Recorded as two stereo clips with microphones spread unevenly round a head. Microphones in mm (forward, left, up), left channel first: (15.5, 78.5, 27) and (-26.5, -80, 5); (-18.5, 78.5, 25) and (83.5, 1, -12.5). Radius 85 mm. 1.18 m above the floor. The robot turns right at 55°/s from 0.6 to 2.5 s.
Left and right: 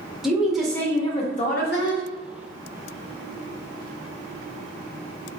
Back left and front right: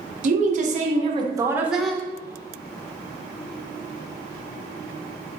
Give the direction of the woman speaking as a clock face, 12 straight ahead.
1 o'clock.